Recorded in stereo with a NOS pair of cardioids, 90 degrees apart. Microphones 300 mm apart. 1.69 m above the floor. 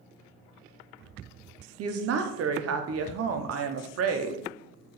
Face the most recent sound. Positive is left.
turn(degrees=-55)